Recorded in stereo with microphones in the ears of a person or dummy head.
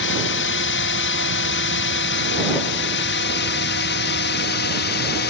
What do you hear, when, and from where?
0.0 s a drone: 65° left (ahead or behind); by 5.3 s 55° left (ahead or behind)